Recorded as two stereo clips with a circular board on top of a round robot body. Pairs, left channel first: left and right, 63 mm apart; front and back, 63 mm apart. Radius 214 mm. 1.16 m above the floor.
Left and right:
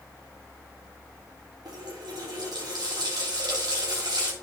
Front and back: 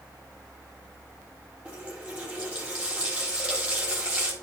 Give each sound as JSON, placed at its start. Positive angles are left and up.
{"t": 1.6, "sound": "a running tap", "azimuth_deg": -105, "distance_m": 1.2}